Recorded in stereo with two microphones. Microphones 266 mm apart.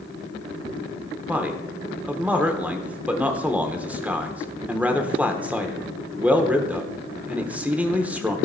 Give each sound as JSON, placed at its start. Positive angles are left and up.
{"t": 1.3, "sound": "a man speaking", "side_deg": -5, "distance_m": 0.9}